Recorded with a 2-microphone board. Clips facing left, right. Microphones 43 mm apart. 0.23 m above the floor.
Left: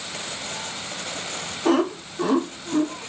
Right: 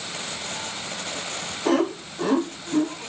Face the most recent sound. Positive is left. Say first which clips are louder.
# left 1 dB
turn(degrees=5)  # may be behind; listen again after turning